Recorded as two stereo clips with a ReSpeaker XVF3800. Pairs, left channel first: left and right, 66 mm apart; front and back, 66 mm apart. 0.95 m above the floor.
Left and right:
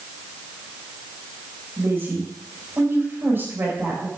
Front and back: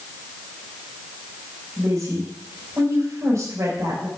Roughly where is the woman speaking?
Behind right.